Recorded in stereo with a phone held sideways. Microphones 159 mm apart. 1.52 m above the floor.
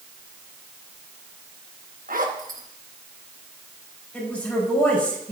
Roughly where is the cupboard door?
I don't hear a cupboard door.